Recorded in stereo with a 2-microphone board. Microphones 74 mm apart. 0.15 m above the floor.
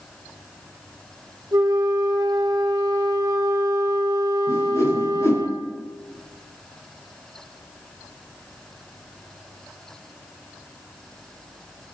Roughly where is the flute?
Right.